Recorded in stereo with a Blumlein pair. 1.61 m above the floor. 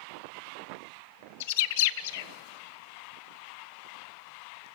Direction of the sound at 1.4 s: 50° left.